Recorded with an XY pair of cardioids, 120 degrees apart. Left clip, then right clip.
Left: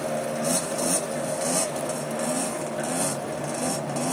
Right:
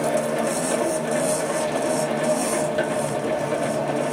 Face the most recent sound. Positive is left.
turn(degrees=-55)